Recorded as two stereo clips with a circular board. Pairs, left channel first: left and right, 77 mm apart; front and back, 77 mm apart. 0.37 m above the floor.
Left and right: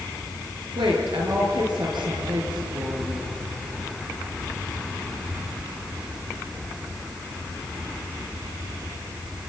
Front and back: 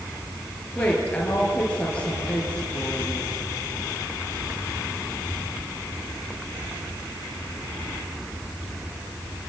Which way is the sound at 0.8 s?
75° right.